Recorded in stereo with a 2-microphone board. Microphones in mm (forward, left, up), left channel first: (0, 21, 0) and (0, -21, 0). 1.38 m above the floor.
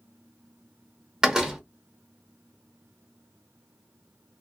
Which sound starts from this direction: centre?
A door slam, at 1.2 s.